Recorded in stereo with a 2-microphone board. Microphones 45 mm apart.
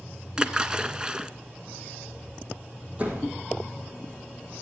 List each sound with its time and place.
0.4 s a splash: 20° right (ahead or behind), 0.5 m
3.0 s a door slam: 30° right (ahead or behind), 3.5 m